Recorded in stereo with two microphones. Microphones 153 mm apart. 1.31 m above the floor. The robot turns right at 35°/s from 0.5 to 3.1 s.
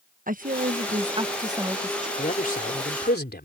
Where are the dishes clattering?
No dishes clattering in this recording.